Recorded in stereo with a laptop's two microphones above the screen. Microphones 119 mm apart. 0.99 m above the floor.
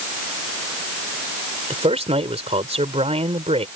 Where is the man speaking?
60° right (ahead or behind).